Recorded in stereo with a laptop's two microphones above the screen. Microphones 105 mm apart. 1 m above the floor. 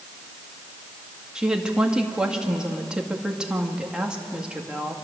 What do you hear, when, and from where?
1.4 s a woman speaking: 10° right (ahead or behind), 2 m